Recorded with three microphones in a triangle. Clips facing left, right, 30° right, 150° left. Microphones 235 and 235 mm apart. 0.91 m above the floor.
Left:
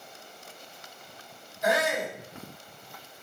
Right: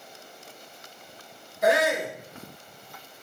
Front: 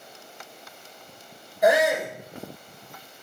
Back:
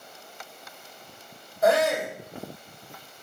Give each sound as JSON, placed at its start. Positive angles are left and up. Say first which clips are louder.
{"t": 1.6, "sound": "a shout", "louder": "right 4 dB, front 1 dB", "azimuth_deg": -105, "distance_m": 6.0}